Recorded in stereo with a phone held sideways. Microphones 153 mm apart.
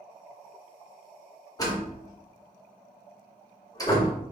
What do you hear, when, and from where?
1.6 s a door slam: 25° left (ahead or behind), 1.3 m